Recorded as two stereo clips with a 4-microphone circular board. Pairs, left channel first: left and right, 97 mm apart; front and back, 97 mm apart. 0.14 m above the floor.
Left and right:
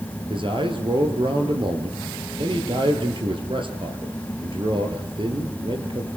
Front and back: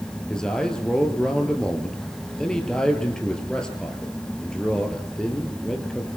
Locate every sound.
0.3 s a man speaking: 80° right, 3 m